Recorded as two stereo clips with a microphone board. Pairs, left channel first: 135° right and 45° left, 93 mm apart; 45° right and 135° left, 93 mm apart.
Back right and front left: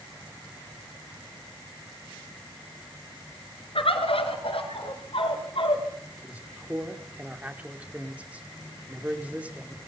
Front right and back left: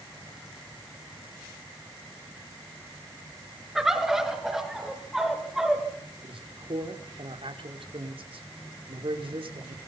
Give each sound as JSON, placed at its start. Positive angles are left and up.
{"t": 3.8, "sound": "a bird", "azimuth_deg": -140, "distance_m": 4.5}
{"t": 6.2, "sound": "a man speaking", "azimuth_deg": 120, "distance_m": 5.0}